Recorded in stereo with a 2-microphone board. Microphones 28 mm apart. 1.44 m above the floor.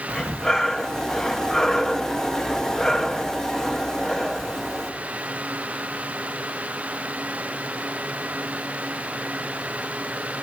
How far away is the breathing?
About 1.7 m.